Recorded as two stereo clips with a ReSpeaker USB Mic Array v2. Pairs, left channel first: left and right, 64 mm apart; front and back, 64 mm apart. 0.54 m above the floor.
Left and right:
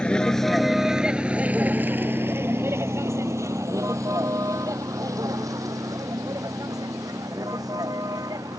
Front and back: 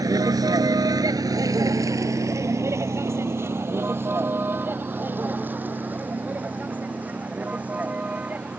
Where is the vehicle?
165° left; by 8.6 s 110° right.